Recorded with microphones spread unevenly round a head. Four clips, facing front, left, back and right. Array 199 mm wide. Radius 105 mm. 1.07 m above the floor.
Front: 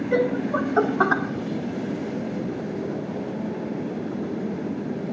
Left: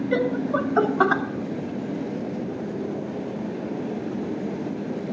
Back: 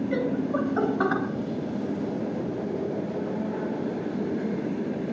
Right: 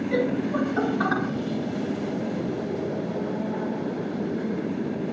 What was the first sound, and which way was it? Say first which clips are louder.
Laughter: left 2 dB, front 6 dB; 35° left.